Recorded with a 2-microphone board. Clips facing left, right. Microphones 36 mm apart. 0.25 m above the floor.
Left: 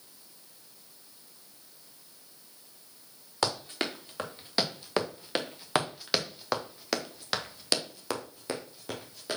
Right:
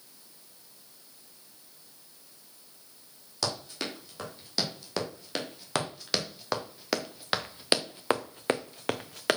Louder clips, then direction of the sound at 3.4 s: Left 3 dB; 30° left (ahead or behind).